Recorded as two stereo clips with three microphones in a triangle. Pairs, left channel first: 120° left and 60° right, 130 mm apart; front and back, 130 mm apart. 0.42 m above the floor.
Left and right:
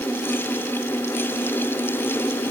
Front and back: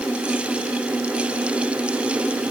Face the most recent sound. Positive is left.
No sound to turn to.